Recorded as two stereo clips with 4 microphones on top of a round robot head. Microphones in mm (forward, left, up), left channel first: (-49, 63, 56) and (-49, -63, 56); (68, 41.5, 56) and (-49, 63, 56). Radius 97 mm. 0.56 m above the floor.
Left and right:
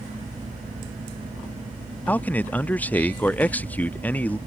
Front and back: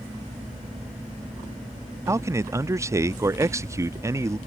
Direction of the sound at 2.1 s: 150° left.